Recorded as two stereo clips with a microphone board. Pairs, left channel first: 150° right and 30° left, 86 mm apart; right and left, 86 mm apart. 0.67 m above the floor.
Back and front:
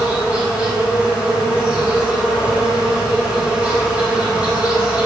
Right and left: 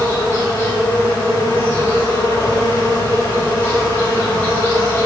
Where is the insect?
35° right, 2.5 m.